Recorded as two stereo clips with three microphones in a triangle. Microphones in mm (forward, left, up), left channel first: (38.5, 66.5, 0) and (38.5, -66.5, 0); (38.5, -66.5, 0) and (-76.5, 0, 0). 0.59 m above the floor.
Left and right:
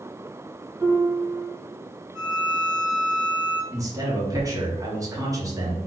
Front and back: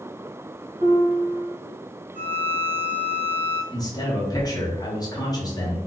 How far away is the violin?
About 2.0 m.